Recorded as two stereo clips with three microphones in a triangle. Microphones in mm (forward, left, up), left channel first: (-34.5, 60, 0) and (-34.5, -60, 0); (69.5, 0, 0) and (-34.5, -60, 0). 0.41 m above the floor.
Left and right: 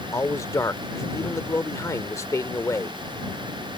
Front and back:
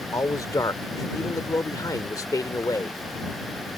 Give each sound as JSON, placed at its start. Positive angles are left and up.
{"t": 0.1, "sound": "a man speaking", "azimuth_deg": 55}